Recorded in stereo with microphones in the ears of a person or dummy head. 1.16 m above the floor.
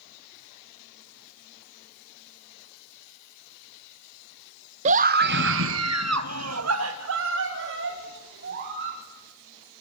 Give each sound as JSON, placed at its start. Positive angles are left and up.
{"t": 4.8, "sound": "a scream", "side_deg": -40, "distance_m": 0.9}